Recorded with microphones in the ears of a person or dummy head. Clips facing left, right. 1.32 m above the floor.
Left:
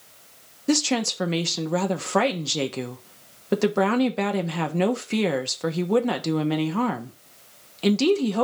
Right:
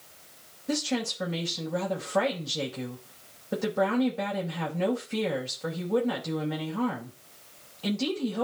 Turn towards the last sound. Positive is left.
turn(degrees=70)  # may be behind; listen again after turning